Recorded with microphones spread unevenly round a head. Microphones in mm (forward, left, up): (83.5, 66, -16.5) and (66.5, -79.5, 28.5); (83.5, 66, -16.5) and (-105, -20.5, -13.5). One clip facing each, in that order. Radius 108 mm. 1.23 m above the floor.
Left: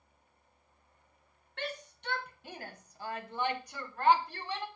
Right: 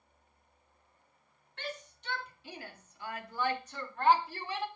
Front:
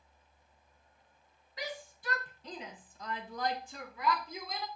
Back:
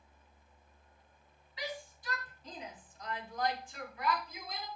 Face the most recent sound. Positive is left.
turn(degrees=-15)